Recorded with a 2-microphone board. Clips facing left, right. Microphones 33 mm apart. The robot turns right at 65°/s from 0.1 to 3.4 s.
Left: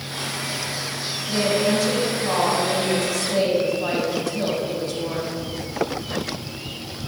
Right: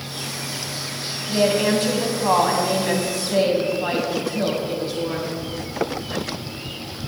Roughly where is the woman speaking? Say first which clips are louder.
Right 2 dB; behind right.